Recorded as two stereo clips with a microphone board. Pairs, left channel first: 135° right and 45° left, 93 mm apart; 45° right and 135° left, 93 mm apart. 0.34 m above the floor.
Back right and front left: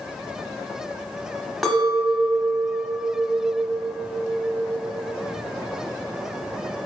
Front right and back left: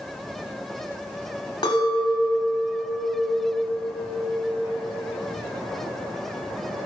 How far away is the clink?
About 1.2 m.